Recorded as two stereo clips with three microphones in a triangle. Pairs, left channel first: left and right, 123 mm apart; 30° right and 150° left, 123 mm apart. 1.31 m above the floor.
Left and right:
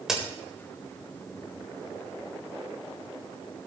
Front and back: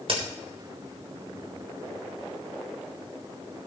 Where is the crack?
175° right, 3.5 m.